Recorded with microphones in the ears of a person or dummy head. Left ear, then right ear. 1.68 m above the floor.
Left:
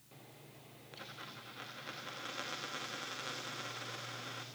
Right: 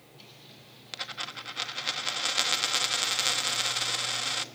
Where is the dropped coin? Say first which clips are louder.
Right 13 dB; 30° right (ahead or behind), 1.2 m.